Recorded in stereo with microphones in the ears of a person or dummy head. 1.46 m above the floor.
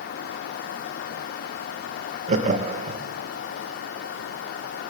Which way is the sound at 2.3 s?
40° right (ahead or behind).